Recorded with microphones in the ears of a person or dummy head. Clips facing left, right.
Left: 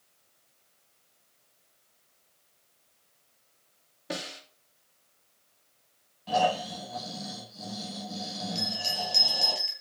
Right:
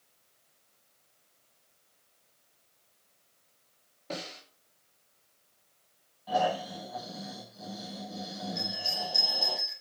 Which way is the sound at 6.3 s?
40° left (ahead or behind).